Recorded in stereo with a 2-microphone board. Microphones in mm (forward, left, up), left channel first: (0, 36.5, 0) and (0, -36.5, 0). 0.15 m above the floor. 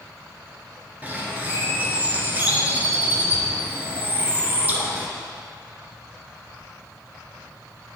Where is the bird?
20° right (ahead or behind), 1.4 m.